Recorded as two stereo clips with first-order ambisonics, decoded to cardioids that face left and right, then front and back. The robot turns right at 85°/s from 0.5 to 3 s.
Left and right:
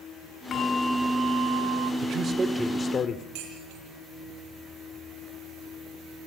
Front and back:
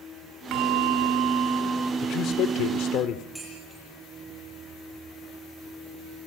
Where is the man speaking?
50° right, 2 m; by 3.2 s 30° left, 2 m.